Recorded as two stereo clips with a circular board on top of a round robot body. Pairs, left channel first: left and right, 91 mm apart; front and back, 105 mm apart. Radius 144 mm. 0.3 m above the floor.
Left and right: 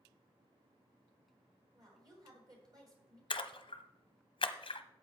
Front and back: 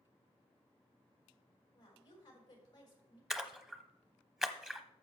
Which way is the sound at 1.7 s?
45° right.